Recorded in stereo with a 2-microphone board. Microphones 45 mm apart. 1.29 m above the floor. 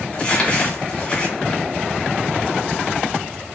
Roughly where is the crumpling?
Left.